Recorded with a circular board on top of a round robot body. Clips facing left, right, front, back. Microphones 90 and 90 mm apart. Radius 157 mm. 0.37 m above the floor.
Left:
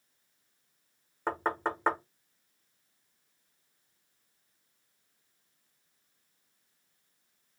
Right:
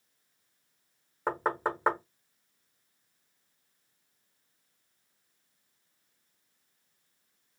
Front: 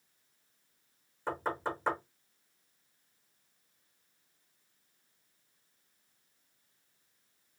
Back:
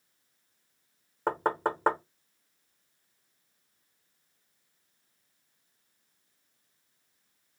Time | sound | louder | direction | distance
1.3 | knocking | right 1 dB, back 6 dB | 170° right | 1.0 m